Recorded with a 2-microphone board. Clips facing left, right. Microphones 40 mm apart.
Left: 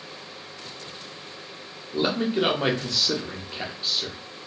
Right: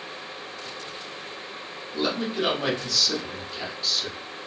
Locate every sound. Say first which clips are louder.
1.9 s a man speaking: left 3 dB; 30° left (ahead or behind), 0.8 m